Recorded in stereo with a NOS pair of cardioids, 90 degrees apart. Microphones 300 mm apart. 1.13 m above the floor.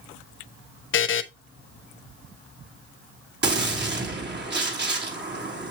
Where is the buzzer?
40° left, 0.9 m.